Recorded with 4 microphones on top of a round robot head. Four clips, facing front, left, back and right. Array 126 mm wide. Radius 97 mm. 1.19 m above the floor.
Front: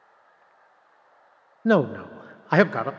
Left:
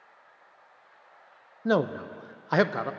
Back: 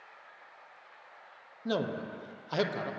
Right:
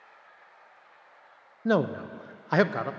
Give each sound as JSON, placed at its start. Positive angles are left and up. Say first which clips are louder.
{"t": 1.6, "sound": "a man speaking", "louder": "even, front 12 dB", "azimuth_deg": 5, "distance_m": 0.6}